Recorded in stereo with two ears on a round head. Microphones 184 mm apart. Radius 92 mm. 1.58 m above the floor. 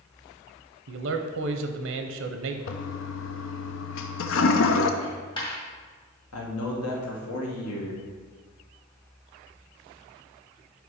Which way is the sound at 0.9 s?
65° right (ahead or behind).